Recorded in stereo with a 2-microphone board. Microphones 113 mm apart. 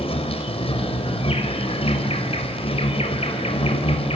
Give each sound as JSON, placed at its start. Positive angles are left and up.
{"t": 0.0, "sound": "an insect", "side_deg": 65, "distance_m": 4.5}